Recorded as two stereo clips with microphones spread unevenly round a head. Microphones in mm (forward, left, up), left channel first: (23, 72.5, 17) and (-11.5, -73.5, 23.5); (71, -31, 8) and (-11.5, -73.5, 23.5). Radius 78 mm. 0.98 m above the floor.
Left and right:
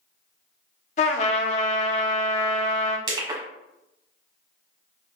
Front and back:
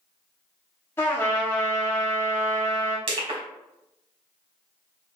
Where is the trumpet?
105° left, 0.5 m.